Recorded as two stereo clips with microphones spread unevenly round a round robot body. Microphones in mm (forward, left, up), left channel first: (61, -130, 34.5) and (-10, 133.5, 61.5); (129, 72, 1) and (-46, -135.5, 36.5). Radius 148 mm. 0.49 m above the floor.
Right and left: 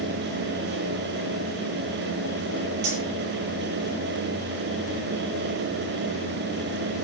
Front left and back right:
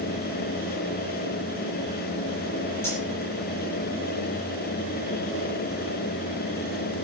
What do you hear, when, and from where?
2.8 s cutlery clinking: 130° left, 8 m